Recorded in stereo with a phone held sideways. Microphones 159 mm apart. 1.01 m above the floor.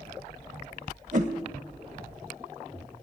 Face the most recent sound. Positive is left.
turn(degrees=-50)  # may be behind; listen again after turning